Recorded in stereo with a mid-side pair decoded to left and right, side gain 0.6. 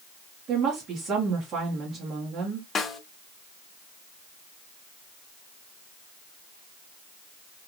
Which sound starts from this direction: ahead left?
A snare drum, at 2.8 s.